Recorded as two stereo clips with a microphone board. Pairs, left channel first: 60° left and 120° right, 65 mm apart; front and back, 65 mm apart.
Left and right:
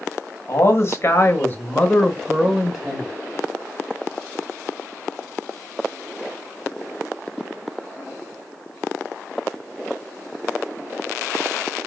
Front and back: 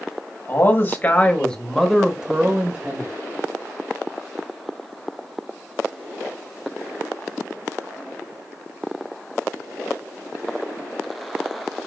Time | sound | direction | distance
0.5 | a man speaking | 35° left | 1.4 m